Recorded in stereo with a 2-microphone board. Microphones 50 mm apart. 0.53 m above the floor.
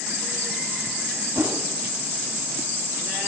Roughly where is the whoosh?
Right.